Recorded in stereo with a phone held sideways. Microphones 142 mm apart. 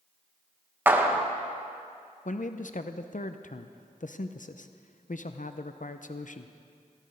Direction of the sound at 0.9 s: 15° right (ahead or behind).